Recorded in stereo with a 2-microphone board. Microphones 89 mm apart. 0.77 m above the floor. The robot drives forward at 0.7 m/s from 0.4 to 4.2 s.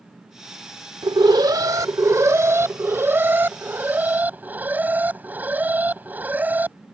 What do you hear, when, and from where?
1.0 s an alarm: 60° right (ahead or behind); by 6.8 s 20° right (ahead or behind)